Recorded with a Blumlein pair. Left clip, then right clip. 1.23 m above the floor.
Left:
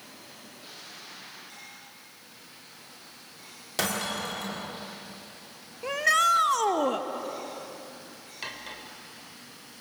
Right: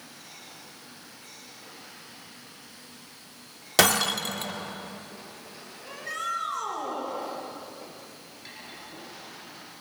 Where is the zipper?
No zipper in this recording.